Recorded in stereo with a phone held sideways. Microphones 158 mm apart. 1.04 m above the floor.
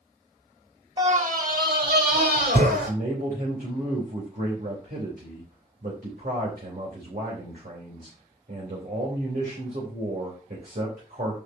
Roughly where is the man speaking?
Right.